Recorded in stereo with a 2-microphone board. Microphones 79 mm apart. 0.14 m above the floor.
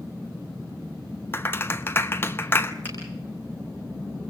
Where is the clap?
30° left (ahead or behind), 0.9 m.